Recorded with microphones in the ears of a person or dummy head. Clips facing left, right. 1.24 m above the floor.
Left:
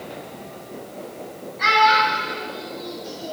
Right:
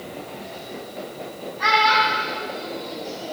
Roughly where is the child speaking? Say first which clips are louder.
Left 2 dB; left.